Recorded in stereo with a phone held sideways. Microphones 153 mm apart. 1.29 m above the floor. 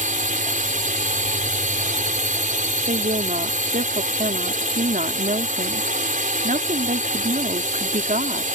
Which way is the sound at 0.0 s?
60° right (ahead or behind).